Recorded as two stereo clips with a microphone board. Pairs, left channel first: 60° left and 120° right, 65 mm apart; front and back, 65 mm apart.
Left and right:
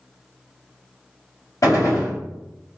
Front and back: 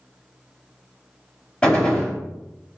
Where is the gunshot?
75° left, 1.9 m.